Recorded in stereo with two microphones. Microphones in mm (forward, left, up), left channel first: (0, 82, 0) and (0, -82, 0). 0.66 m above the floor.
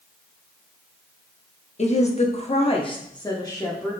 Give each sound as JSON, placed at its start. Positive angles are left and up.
{"t": 1.8, "sound": "a woman speaking", "side_deg": 45, "distance_m": 0.8}